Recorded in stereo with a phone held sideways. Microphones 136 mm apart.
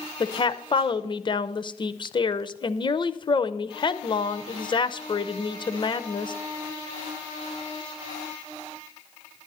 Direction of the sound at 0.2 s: 35° left (ahead or behind).